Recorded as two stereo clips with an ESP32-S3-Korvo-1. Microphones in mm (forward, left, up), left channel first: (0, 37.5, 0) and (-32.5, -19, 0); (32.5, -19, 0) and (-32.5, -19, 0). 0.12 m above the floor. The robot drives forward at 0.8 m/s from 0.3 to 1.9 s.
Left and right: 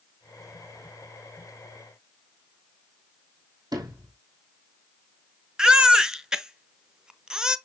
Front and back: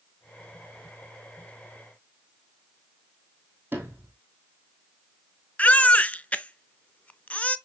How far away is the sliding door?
About 3 m.